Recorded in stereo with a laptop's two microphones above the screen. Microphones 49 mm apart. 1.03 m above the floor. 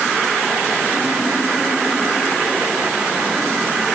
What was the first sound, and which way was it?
Only background noise.